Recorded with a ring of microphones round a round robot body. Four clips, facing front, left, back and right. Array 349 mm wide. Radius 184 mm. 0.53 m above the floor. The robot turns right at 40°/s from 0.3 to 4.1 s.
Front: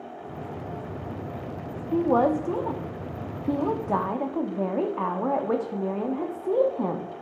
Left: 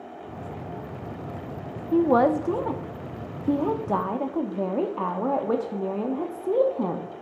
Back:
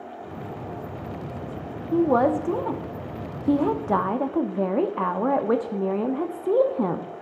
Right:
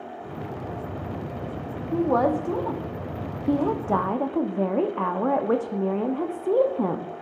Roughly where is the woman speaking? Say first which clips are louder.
Left 2 dB, back 2 dB; behind left.